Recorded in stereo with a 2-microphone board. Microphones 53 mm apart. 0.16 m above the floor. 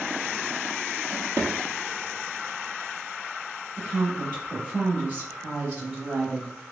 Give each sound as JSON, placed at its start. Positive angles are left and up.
{"t": 1.1, "sound": "a drawer", "side_deg": -55, "distance_m": 0.9}
{"t": 3.8, "sound": "a woman speaking", "side_deg": -25, "distance_m": 1.9}